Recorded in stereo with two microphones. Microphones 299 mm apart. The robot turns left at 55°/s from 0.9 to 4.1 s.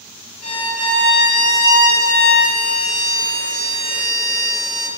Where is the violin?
150° left, 1.1 m; by 4.9 s 25° right, 1.1 m.